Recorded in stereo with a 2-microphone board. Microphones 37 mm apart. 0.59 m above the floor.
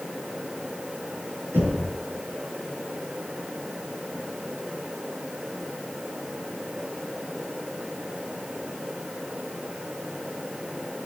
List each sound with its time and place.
1.5 s knocking: 75° right (ahead or behind), 6.5 m